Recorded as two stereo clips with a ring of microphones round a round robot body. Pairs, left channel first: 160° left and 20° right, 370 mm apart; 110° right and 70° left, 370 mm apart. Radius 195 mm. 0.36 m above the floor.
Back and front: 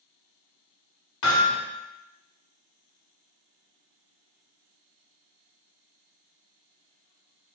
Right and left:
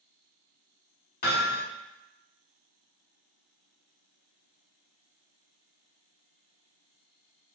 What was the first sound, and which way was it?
Hammering, 175° right.